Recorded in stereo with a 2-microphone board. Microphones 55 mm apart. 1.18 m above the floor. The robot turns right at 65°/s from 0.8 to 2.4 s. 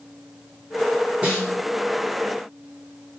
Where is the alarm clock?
I don't hear an alarm clock.